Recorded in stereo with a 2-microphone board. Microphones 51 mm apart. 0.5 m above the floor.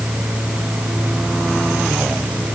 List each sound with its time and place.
Only background noise.